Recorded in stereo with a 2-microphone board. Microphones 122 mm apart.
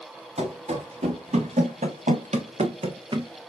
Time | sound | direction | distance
0.4 | running footsteps | 60° right (ahead or behind) | 1.6 m